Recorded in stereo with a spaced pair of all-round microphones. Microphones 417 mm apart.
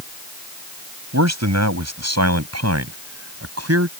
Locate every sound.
1.1 s a man speaking: 40° right (ahead or behind); by 3.9 s 35° right (ahead or behind)